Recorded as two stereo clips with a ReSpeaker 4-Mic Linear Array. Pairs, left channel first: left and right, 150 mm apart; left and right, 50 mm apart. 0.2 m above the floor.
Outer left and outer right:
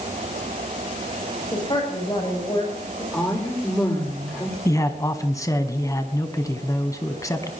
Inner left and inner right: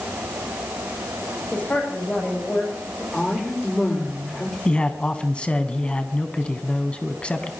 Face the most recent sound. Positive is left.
turn(degrees=20)  # may be behind; listen again after turning